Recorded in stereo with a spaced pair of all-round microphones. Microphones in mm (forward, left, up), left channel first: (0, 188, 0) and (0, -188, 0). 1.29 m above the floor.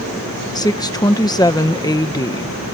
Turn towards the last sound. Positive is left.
turn(degrees=10)  # may be behind; listen again after turning